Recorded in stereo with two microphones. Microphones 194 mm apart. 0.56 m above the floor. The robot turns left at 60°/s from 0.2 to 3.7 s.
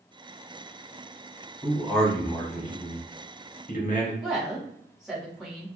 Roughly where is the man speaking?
Behind.